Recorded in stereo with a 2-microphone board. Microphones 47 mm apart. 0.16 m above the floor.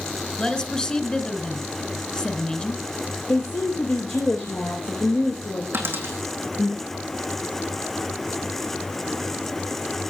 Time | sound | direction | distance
0.4 | a woman speaking | 20° left (ahead or behind) | 2 m
3.3 | a woman speaking | 65° left (ahead or behind) | 3 m
5.7 | a dropped coin | 50° right (ahead or behind) | 3 m